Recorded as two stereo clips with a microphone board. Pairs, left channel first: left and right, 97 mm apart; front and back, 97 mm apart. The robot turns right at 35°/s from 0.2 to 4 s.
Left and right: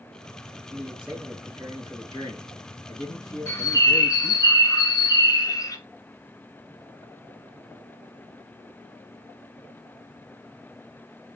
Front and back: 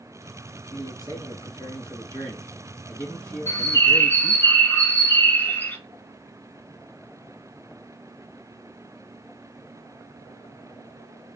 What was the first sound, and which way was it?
A man speaking, 25° right.